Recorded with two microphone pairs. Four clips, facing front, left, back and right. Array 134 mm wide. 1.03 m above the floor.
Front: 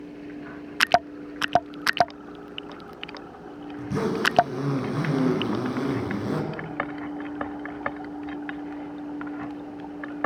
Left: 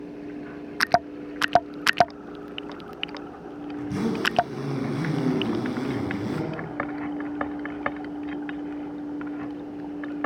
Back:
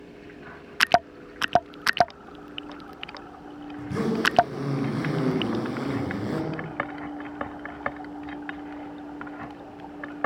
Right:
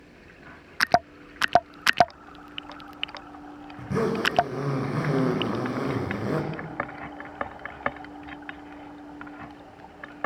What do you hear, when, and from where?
3.8 s a zipper: 80° right, 5 m